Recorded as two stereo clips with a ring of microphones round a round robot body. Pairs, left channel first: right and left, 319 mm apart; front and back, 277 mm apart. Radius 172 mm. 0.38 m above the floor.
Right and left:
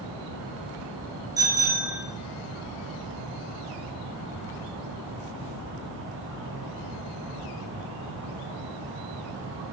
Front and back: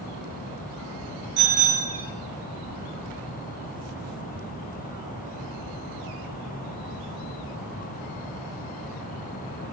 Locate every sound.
1.4 s a bicycle bell: 170° left, 5.5 m